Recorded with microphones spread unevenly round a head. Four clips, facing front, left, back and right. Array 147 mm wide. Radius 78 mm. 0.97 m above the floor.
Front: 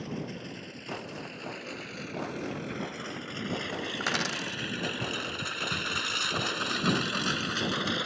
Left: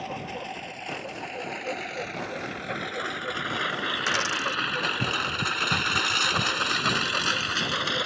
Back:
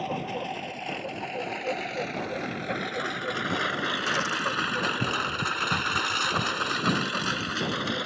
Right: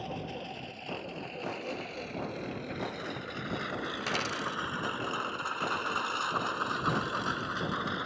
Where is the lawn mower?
170° left; by 8.1 s 70° left.